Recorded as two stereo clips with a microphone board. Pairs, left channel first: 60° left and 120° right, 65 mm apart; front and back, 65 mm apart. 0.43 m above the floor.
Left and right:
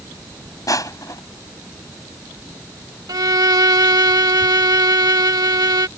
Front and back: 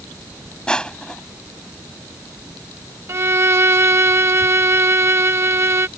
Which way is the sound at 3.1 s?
135° right.